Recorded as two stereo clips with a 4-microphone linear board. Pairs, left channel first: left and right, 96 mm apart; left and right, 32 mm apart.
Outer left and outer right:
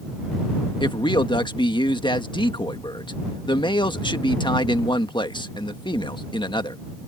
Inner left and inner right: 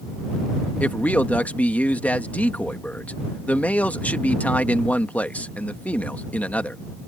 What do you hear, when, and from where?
0.8 s a man speaking: 55° left (ahead or behind)